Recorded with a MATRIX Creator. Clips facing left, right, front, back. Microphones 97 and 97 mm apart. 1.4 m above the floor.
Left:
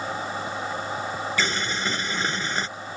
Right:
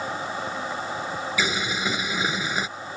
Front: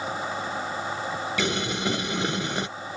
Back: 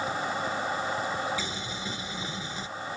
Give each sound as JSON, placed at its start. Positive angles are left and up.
{"t": 1.4, "sound": "boiling", "azimuth_deg": -5}